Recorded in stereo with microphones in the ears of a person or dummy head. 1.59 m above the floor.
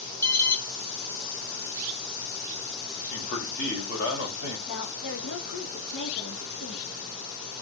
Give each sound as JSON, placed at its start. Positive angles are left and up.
{"t": 0.2, "sound": "an alarm", "side_deg": 10, "distance_m": 1.2}
{"t": 3.0, "sound": "a man speaking", "side_deg": 50, "distance_m": 3.5}
{"t": 4.7, "sound": "a woman speaking", "side_deg": 80, "distance_m": 2.0}